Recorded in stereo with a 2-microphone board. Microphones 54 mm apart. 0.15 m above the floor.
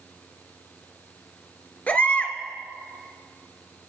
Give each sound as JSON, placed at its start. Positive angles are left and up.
{"t": 1.9, "sound": "a baby crying", "side_deg": 30, "distance_m": 1.3}